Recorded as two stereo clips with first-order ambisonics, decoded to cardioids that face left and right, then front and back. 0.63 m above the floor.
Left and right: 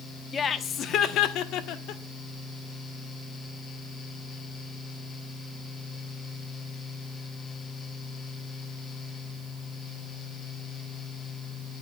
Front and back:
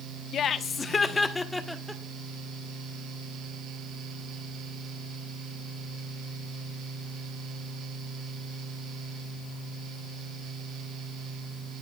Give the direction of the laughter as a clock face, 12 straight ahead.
11 o'clock.